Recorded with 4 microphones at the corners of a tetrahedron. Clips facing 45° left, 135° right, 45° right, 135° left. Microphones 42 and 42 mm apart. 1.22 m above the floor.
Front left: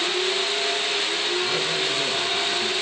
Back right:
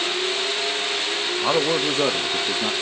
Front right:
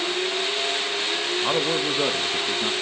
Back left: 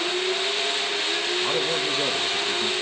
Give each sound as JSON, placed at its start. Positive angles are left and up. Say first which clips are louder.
{"t": 1.4, "sound": "a man speaking", "louder": "back right 4 dB, front right 1 dB", "azimuth_deg": -120, "distance_m": 1.5}